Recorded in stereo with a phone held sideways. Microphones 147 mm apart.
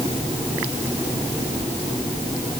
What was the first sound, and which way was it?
Only background noise.